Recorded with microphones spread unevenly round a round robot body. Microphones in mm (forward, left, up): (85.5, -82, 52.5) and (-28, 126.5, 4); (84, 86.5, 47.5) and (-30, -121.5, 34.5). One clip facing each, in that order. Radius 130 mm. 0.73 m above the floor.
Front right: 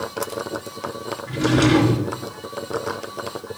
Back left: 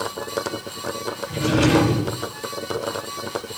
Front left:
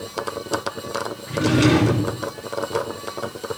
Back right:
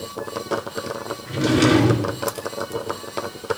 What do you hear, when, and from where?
1.3 s a drawer: 65° right, 4.5 m